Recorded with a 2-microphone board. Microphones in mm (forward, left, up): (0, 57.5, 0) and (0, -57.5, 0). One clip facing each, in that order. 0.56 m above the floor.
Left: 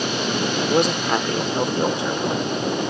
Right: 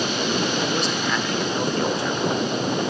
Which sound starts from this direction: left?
A man speaking, at 0.7 s.